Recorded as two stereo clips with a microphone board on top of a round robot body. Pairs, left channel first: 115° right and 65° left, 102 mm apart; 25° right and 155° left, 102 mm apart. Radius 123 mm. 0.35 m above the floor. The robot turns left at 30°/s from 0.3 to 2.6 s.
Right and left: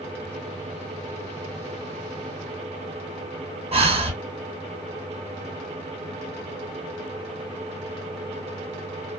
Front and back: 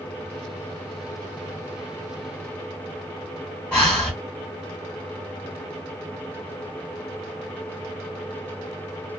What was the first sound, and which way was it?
Breathing, 60° left.